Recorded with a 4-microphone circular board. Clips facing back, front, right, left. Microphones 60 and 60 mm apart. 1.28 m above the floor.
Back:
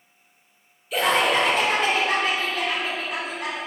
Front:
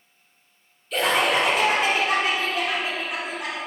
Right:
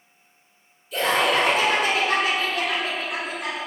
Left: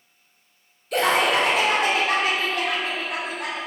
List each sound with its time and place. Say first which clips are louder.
0.9 s laughter: back 1 dB, left 1 dB; 100° left, 0.6 m; by 3.6 s 75° left, 3 m